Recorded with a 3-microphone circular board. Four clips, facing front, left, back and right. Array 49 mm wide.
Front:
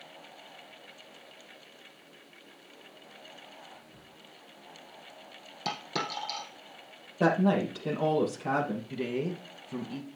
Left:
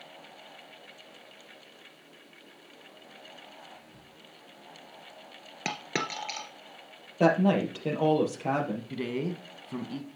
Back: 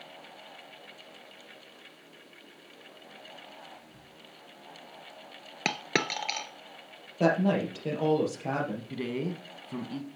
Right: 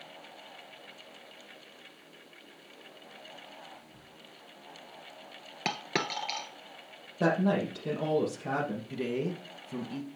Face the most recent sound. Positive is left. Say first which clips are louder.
# even, front 1 dB
turn(degrees=115)